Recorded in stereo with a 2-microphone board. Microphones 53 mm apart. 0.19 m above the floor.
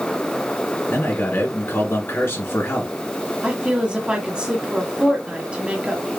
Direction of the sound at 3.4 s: 20° right (ahead or behind).